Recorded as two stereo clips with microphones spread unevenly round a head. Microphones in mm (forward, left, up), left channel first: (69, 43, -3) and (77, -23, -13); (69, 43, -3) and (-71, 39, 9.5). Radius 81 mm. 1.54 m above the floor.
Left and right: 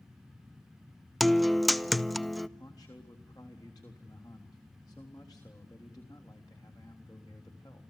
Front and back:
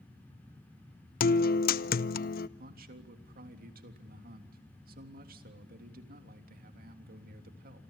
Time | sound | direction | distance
1.2 | a guitar | 10° left | 0.8 m
2.6 | a man speaking | 165° left | 3.5 m